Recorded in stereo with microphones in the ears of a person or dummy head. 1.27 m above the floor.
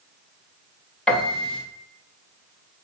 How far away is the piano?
About 0.8 m.